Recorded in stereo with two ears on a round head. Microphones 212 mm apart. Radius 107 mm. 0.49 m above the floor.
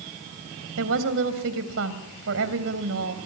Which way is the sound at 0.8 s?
60° right (ahead or behind).